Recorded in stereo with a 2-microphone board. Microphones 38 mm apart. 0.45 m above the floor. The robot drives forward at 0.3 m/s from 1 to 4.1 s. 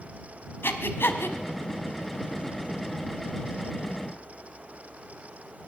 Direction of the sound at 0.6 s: 85° left.